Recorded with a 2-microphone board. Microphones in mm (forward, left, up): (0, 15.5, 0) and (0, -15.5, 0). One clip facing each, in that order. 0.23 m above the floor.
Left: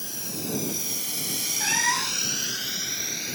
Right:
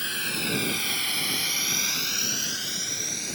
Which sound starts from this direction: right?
A drone, at 0.0 s.